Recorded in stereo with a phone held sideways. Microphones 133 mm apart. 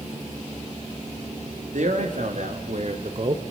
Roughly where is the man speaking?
Right.